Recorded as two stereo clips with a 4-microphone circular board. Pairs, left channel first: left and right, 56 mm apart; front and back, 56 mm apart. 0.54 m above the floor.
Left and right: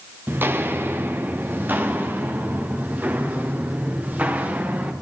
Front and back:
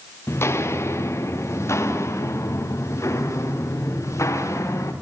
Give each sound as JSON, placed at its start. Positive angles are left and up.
{"t": 0.3, "sound": "footsteps", "azimuth_deg": -40, "distance_m": 3.5}